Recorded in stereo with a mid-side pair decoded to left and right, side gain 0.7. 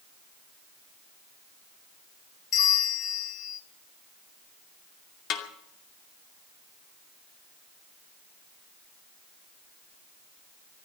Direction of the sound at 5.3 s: 55° left.